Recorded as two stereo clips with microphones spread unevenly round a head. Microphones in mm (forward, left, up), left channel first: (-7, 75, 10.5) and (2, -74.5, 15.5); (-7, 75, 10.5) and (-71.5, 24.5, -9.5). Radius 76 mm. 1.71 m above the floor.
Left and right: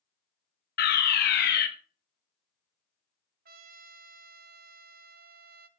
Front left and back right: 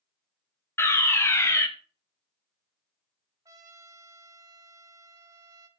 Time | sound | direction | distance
0.8 | a fire alarm | 105° left | 2 m
3.5 | a trumpet | 70° right | 0.9 m